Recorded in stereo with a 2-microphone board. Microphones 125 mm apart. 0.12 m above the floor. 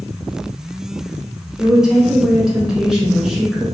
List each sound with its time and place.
1.6 s a woman speaking: 5° right (ahead or behind), 1.1 m